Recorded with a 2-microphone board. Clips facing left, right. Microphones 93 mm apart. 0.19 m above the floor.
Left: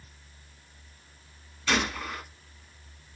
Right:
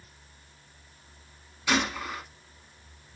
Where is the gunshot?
10° right (ahead or behind), 0.9 m.